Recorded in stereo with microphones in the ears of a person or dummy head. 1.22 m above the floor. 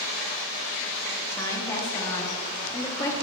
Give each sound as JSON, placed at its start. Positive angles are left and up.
{"t": 1.3, "sound": "a woman speaking", "side_deg": 15, "distance_m": 0.8}